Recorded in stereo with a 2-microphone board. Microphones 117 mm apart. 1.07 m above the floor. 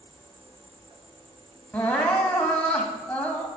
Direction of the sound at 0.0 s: 50° right (ahead or behind).